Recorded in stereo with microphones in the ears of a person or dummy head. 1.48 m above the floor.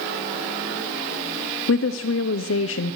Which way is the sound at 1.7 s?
65° left (ahead or behind).